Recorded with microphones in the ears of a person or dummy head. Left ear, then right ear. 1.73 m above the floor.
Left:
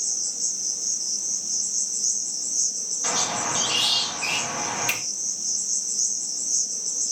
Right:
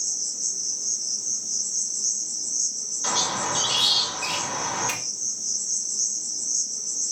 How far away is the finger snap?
About 1.2 m.